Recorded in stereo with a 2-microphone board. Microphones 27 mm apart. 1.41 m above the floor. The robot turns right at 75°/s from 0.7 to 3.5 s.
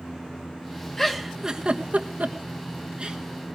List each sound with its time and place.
1.0 s a giggle: 15° left (ahead or behind), 1.4 m; by 3.2 s 30° right (ahead or behind), 1.4 m